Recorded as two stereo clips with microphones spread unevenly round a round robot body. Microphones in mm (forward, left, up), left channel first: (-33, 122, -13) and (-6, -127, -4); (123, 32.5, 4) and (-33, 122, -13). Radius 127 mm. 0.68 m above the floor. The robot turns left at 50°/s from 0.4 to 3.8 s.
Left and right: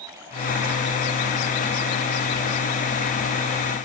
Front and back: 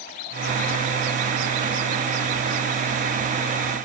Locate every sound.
Only background noise.